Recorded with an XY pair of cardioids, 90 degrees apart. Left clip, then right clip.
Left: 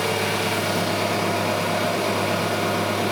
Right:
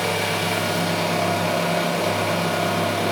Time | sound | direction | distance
0.0 | an engine running | 15° right | 1.1 m